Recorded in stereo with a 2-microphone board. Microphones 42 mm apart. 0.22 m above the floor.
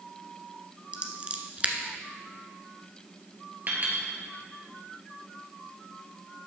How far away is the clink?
About 2.5 m.